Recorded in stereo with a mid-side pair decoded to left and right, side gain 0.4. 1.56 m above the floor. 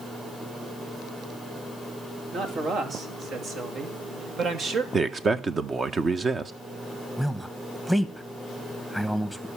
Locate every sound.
2.3 s a man speaking: 70° right, 3.5 m; by 4.8 s 60° right, 2 m
4.9 s a man speaking: 40° right, 1.3 m
7.2 s a man speaking: 5° right, 1.8 m